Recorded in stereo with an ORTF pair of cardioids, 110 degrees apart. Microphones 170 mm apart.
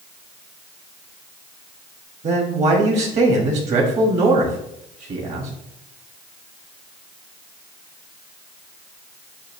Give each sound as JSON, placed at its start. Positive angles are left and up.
{"t": 2.2, "sound": "a man speaking", "azimuth_deg": -40, "distance_m": 2.0}